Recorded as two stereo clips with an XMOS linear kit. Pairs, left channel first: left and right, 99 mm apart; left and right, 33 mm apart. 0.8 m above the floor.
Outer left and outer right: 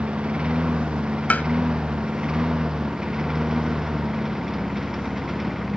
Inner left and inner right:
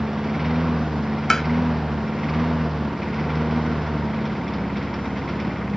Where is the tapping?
15° left (ahead or behind).